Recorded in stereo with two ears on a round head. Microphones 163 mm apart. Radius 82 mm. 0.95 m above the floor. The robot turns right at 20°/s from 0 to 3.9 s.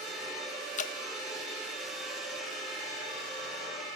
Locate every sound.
0.8 s dripping: 40° left (ahead or behind), 1.3 m; by 0.9 s 45° left (ahead or behind), 1.3 m